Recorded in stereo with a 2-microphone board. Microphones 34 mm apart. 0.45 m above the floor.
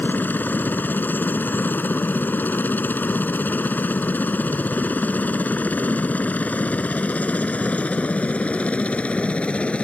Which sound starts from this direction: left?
A helicopter, at 0.0 s.